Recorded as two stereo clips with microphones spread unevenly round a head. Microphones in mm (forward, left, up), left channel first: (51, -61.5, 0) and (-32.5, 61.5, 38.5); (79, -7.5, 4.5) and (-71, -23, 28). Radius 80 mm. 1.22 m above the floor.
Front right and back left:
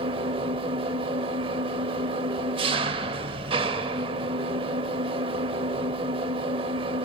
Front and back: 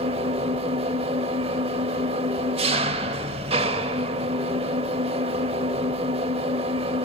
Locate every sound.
0.0 s an engine running: 150° left, 1.3 m